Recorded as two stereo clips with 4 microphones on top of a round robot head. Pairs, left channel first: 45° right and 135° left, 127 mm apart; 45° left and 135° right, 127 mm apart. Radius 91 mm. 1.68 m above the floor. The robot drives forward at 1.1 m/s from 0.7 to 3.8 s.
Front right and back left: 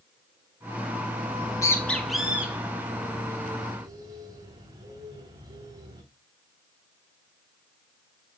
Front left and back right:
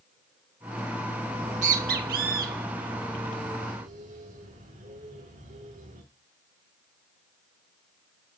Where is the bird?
80° right, 1.1 m; by 6.0 s 165° right, 3 m.